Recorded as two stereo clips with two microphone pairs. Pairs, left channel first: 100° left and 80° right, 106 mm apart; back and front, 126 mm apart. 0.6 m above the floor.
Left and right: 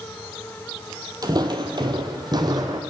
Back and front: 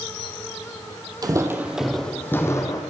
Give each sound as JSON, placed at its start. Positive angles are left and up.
{"t": 1.2, "sound": "footsteps", "azimuth_deg": -45, "distance_m": 0.8}